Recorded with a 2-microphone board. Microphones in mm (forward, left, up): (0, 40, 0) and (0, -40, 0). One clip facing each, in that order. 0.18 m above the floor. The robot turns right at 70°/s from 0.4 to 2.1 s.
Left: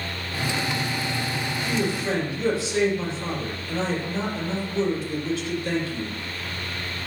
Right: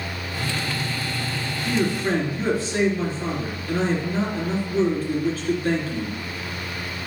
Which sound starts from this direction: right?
A man speaking, at 1.6 s.